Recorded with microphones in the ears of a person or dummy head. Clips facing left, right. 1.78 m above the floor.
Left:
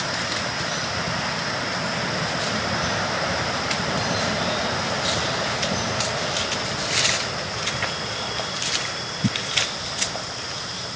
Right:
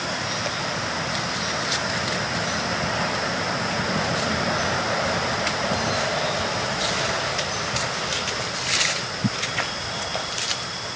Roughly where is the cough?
No cough in this recording.